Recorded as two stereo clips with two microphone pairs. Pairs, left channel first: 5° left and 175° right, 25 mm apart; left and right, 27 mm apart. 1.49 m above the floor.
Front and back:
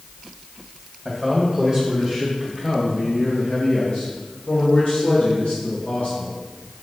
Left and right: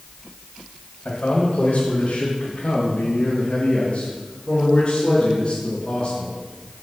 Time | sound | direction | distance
1.1 | a man speaking | 105° left | 1.8 m